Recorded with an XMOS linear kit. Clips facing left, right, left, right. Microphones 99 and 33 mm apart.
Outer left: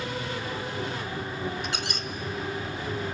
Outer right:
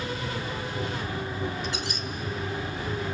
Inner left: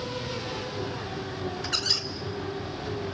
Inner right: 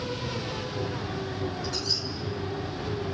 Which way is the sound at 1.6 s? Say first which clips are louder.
Even, inner left 2 dB; 60° left (ahead or behind).